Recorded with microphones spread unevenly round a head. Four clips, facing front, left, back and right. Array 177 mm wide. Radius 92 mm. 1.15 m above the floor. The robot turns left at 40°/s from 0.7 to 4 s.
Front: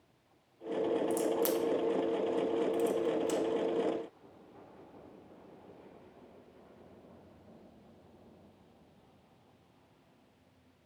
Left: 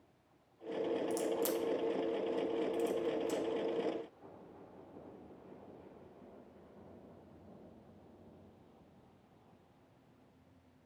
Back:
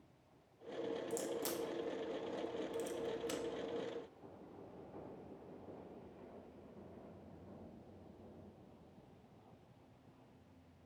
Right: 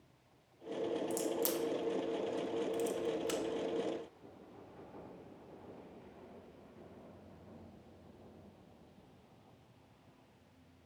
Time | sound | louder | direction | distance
1.1 | a crack | left 1 dB, front 11 dB | 20° left | 0.7 m